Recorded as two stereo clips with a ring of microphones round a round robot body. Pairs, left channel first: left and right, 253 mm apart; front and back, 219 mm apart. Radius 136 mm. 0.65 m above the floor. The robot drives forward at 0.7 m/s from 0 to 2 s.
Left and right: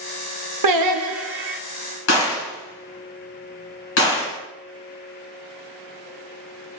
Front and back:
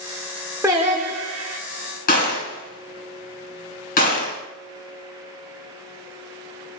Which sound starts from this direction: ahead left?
A gunshot, at 2.1 s.